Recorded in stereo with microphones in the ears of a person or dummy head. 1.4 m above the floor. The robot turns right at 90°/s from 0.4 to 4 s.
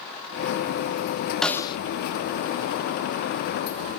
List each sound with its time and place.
1.4 s a snare drum: 5° left, 0.5 m; by 1.8 s 35° left, 0.5 m